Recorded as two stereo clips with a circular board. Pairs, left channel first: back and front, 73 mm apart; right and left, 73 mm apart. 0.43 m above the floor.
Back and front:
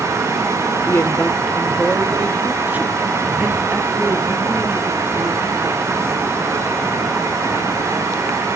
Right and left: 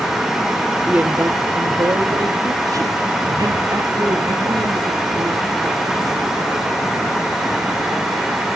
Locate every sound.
0.9 s a woman speaking: 155° left, 0.9 m; by 6.7 s 55° left, 6.5 m